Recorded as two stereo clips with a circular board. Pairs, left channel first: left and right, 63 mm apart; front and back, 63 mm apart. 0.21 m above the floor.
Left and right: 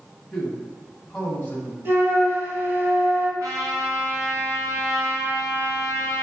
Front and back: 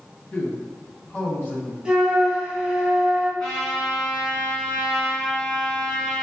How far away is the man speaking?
About 1.2 m.